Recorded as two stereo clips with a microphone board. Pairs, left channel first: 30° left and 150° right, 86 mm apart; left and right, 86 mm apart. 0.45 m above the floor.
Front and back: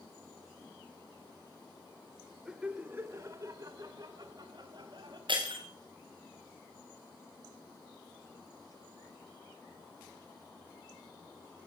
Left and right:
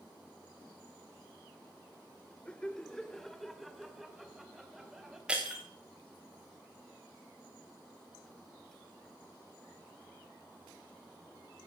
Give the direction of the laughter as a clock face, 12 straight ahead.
7 o'clock.